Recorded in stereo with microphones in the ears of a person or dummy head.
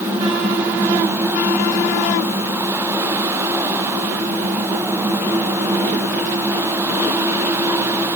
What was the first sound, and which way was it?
Only background noise.